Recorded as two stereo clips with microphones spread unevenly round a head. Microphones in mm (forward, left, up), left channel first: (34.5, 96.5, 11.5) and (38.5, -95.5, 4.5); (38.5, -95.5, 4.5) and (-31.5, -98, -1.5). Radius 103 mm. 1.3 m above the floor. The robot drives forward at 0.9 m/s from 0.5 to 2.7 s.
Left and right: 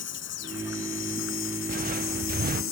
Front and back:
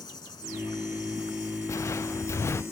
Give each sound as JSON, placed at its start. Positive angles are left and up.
{"t": 0.0, "sound": "an insect", "azimuth_deg": 70}
{"t": 1.7, "sound": "footsteps", "azimuth_deg": -45}